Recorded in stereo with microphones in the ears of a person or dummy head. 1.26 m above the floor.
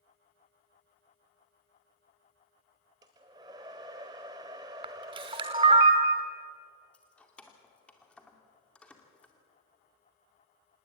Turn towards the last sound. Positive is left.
turn(degrees=5)  # may be behind; listen again after turning